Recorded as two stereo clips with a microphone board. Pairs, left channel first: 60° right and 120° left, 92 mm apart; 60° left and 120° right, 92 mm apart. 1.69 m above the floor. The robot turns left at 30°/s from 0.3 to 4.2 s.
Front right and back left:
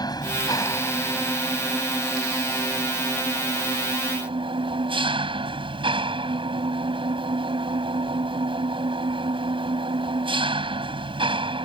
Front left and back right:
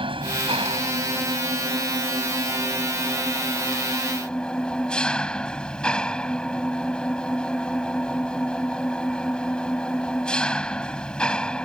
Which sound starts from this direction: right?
An engine running, at 0.0 s.